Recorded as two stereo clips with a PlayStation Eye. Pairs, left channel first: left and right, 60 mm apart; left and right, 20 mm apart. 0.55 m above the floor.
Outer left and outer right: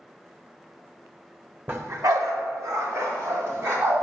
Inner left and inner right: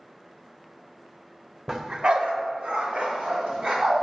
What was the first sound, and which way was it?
A dog barking, 35° right (ahead or behind).